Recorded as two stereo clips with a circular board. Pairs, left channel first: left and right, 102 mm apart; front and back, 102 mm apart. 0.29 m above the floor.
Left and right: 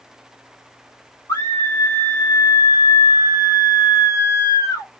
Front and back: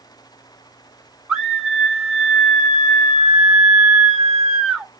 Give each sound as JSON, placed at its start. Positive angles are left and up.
{"t": 1.3, "sound": "a scream", "azimuth_deg": 100, "distance_m": 1.5}